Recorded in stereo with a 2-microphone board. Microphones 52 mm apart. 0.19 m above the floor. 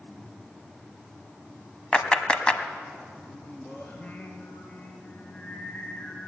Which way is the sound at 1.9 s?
20° left (ahead or behind).